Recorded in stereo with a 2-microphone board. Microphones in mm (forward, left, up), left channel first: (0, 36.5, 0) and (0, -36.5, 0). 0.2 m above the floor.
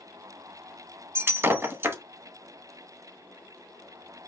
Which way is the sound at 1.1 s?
35° right (ahead or behind).